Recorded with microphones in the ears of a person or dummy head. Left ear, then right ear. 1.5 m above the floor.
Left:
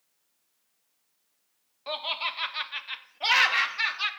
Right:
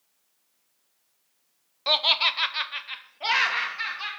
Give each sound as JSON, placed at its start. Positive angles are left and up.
{"t": 1.9, "sound": "laughter", "side_deg": -45, "distance_m": 0.7}